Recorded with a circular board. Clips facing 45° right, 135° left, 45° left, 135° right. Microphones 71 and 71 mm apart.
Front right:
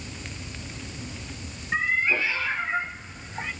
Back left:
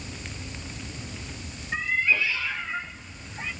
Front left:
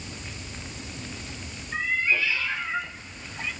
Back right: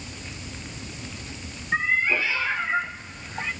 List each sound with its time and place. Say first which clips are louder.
1.7 s a cat meowing: front right 1 dB, back right 3 dB; 100° right, 3.5 m; by 3.5 s 95° right, 5.5 m